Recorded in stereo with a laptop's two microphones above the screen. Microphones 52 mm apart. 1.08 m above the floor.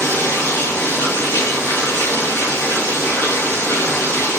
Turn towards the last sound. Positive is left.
turn(degrees=65)  # may be behind; listen again after turning